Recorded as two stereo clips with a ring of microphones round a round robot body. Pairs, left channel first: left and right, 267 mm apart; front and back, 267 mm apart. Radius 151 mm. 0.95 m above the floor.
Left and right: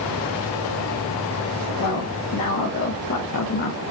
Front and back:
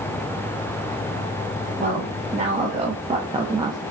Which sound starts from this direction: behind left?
A woman speaking, at 1.8 s.